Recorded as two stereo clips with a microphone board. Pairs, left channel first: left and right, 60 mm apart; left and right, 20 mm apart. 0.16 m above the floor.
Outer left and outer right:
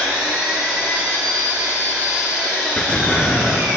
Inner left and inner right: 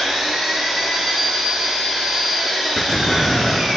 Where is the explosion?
15° left (ahead or behind), 1.3 m.